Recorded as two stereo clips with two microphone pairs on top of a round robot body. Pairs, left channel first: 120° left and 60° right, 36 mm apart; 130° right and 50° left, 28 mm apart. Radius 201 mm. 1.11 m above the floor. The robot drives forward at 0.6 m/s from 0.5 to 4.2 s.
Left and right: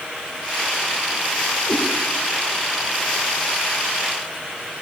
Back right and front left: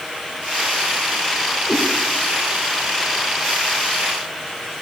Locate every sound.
1.6 s a cat meowing: 150° left, 8.5 m; by 1.8 s 155° left, 8.5 m